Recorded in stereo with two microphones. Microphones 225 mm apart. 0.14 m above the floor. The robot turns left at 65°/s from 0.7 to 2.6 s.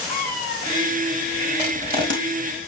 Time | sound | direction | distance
0.1 | a cat meowing | 40° left (ahead or behind) | 2 m
1.6 | crushing | 20° right (ahead or behind) | 4 m